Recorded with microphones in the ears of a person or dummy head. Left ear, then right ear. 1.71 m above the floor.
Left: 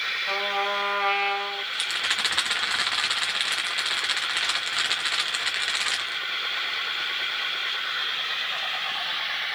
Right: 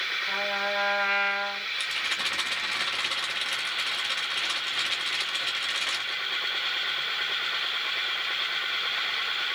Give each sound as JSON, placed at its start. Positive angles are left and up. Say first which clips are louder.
{"t": 0.3, "sound": "a trumpet", "louder": "left 2 dB", "side_deg": 30, "distance_m": 3.0}
{"t": 1.7, "sound": "a rattle", "louder": "left 4 dB", "side_deg": 35, "distance_m": 1.2}